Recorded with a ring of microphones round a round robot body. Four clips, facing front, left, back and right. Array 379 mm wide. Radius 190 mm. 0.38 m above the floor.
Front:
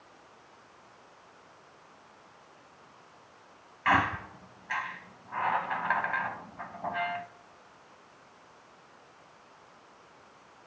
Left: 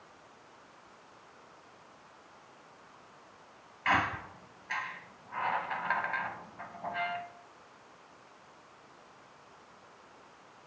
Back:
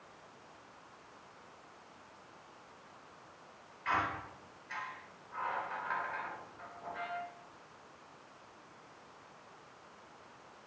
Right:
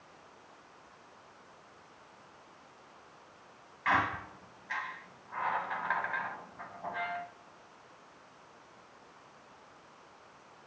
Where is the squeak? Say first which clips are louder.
Even, front 8 dB; 10° left, 1.2 m.